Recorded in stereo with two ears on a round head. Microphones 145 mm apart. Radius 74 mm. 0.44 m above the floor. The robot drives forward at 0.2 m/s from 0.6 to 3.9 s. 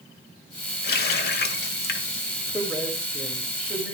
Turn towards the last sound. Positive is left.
turn(degrees=5)  # may be behind; listen again after turning